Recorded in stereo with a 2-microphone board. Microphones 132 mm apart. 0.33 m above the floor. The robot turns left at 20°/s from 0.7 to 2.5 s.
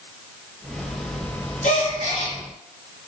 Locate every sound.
1.6 s a gasp: 65° left (ahead or behind), 3 m; by 2.4 s 50° left (ahead or behind), 3 m